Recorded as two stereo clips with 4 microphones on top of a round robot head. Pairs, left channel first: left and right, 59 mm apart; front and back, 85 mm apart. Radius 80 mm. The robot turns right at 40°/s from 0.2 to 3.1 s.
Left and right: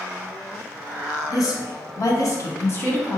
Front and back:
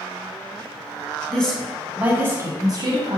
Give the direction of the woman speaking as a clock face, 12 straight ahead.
9 o'clock.